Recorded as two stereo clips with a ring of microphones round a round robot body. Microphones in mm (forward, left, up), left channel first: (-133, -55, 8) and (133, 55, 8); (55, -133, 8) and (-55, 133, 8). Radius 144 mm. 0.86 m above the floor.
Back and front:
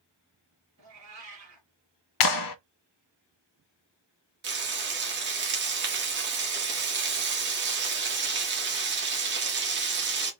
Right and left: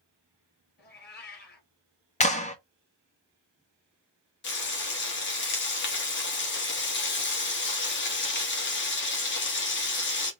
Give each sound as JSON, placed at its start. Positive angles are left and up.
{"t": 0.8, "sound": "a cat meowing", "azimuth_deg": -10, "distance_m": 2.5}
{"t": 2.2, "sound": "a clap", "azimuth_deg": -135, "distance_m": 0.6}
{"t": 4.4, "sound": "frying", "azimuth_deg": -25, "distance_m": 1.6}